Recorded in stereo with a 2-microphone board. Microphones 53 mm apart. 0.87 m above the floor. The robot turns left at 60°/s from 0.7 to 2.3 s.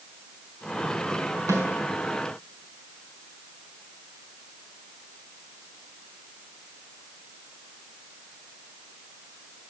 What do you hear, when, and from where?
1.5 s a snare drum: 85° right, 3.5 m; by 1.6 s 75° right (ahead or behind), 3.5 m